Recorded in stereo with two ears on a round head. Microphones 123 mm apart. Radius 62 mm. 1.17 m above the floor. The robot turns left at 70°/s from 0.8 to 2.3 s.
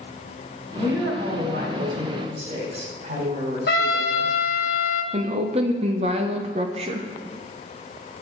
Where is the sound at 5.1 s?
45° right (ahead or behind), 0.7 m.